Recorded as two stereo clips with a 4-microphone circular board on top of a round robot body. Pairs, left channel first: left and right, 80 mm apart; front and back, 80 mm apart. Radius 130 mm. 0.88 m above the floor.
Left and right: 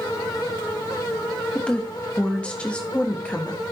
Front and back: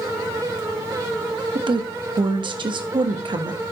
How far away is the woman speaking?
About 1.3 m.